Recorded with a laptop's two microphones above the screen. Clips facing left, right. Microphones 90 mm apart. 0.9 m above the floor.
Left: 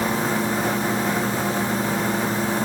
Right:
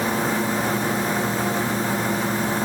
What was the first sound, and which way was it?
Only background noise.